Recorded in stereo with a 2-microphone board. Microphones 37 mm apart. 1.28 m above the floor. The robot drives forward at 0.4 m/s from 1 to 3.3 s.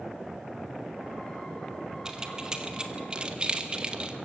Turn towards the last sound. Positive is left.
turn(degrees=-25)  # may be behind; listen again after turning